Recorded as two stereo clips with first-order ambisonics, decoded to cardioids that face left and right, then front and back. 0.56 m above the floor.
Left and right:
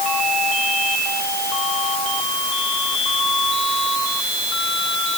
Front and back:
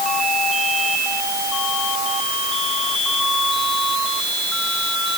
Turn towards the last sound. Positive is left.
No sound to turn to.